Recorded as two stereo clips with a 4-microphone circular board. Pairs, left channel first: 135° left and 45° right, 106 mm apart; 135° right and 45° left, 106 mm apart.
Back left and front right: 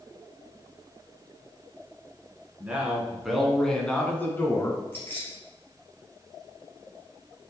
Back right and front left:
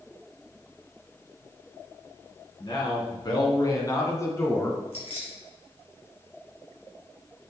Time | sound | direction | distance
2.6 | a man speaking | 115° right | 1.9 m
4.9 | keys jangling | 155° right | 3 m